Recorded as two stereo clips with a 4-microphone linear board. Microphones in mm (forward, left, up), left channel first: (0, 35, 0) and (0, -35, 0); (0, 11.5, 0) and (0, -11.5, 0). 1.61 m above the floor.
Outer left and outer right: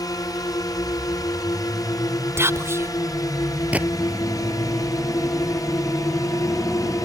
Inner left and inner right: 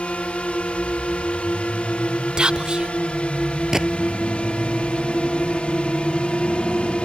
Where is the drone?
70° left (ahead or behind); by 7.1 s 60° left (ahead or behind).